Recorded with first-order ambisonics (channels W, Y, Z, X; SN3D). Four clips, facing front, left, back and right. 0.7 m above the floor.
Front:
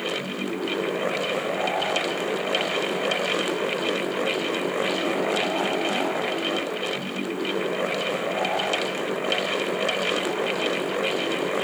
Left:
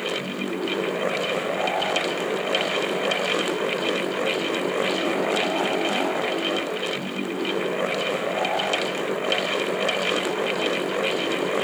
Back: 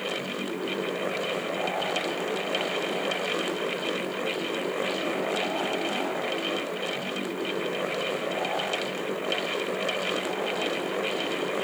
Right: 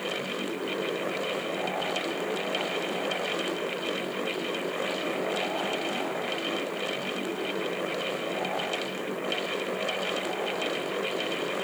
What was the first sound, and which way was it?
Only background noise.